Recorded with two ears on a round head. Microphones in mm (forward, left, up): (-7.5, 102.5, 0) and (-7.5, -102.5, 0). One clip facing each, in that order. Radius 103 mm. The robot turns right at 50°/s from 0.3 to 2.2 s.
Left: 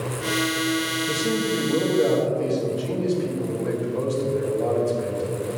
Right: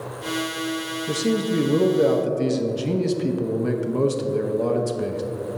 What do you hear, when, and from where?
1.1 s a man speaking: 155° right, 0.9 m; by 5.2 s 95° right, 0.9 m